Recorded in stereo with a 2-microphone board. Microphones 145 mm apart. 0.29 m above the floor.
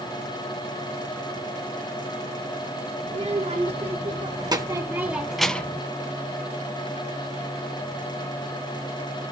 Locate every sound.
3.1 s a child speaking: 50° right (ahead or behind), 3 m; by 5.8 s 15° left (ahead or behind), 1.6 m